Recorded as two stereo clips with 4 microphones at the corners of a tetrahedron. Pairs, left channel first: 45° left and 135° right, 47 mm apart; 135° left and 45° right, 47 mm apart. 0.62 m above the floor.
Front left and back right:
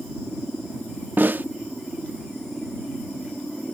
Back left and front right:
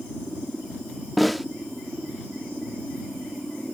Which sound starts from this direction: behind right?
A snare drum, at 1.2 s.